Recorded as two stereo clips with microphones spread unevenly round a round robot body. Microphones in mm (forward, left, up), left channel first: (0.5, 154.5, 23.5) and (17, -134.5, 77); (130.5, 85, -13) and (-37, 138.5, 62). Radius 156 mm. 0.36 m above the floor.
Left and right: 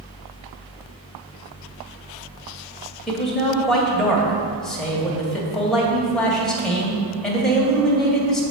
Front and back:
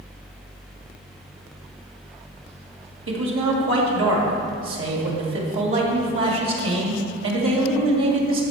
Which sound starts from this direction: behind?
A man speaking, at 3.1 s.